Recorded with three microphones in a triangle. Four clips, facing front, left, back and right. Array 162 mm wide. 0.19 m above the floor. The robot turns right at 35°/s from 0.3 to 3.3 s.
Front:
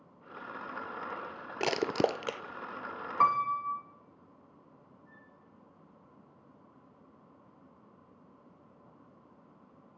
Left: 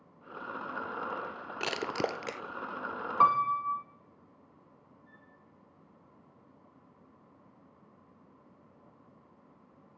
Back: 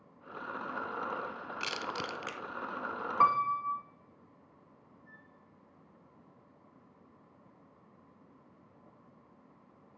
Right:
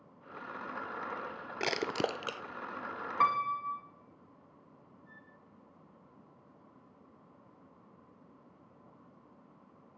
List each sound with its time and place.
1.6 s crushing: 10° right, 0.6 m; by 2.4 s 20° left, 0.6 m
3.2 s a piano: 90° left, 1.2 m; by 3.9 s 95° left, 1.2 m
5.0 s a flute: 130° right, 9.5 m